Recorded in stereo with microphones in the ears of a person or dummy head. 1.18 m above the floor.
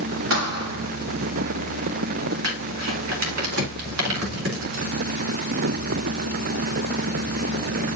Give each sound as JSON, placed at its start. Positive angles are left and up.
{"t": 0.3, "sound": "a thud", "side_deg": -70, "distance_m": 3.5}
{"t": 2.4, "sound": "crumpling", "side_deg": -90, "distance_m": 3.0}